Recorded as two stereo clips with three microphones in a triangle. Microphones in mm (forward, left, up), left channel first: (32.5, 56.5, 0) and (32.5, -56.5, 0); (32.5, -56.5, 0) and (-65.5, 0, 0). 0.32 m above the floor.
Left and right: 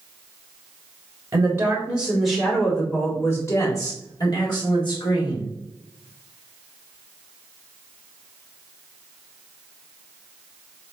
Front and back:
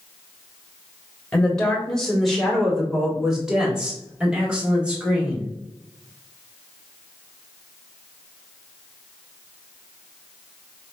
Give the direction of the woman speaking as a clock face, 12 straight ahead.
3 o'clock.